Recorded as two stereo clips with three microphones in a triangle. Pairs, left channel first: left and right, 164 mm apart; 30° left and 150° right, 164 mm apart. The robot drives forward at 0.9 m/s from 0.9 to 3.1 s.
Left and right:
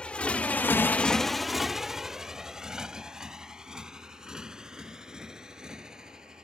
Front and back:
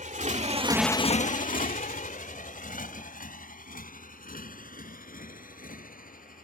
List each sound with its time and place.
0.0 s a motorcycle: 175° left; by 6.4 s 5° right